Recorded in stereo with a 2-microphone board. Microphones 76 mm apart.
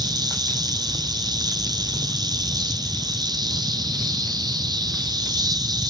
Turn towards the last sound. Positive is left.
turn(degrees=-65)  # may be behind; listen again after turning